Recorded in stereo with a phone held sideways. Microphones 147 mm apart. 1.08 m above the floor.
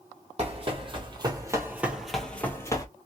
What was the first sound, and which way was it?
Running footsteps, 45° right (ahead or behind).